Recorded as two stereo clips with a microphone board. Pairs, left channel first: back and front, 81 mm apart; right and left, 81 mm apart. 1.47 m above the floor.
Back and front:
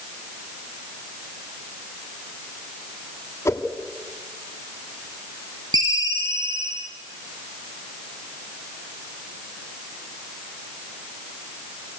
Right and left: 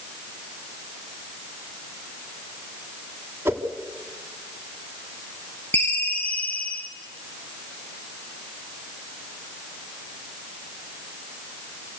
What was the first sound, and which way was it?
A whoosh, 140° left.